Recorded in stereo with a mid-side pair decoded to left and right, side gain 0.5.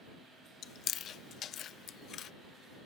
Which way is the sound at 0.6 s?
55° left.